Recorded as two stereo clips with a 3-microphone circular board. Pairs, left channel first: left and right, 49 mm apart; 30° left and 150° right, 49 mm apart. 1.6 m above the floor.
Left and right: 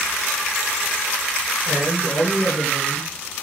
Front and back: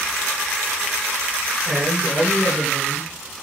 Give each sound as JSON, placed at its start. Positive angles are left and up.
{"t": 1.6, "sound": "a man speaking", "azimuth_deg": 120, "distance_m": 7.5}